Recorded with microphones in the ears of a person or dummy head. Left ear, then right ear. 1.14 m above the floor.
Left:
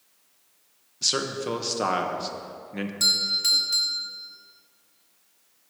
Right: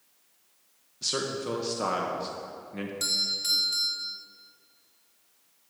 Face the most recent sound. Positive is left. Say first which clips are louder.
# left 6 dB
turn(degrees=10)  # may be behind; listen again after turning